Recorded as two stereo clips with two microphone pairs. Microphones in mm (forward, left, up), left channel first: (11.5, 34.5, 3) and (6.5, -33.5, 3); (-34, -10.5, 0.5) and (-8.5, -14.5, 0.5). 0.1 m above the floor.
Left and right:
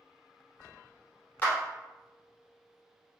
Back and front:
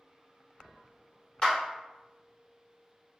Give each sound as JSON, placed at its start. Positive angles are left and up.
{"t": 1.4, "sound": "a clap", "azimuth_deg": 140, "distance_m": 1.7}